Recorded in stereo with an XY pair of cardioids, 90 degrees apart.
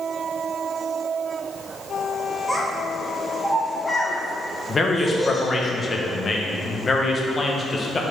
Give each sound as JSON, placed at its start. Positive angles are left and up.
{"t": 2.5, "sound": "a child speaking", "azimuth_deg": 0, "distance_m": 1.0}
{"t": 4.7, "sound": "a man speaking", "azimuth_deg": 35, "distance_m": 1.1}